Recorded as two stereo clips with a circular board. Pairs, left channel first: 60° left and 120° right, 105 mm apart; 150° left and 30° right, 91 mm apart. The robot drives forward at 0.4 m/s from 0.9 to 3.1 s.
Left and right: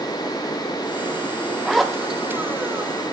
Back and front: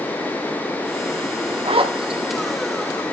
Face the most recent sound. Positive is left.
turn(degrees=-70)